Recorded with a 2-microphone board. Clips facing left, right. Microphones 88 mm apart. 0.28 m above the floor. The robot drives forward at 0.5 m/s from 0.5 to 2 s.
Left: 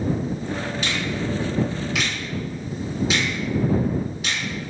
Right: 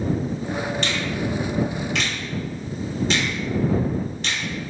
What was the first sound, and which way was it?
A finger snap, 5° left (ahead or behind).